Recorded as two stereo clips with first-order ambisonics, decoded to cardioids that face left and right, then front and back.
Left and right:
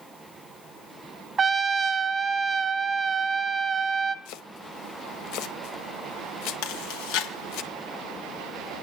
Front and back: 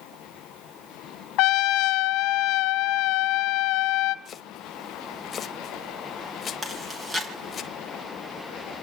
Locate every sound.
1.4 s a trumpet: 25° right, 1.0 m
4.2 s chopping: 65° left, 1.2 m
6.6 s chewing: 105° left, 4 m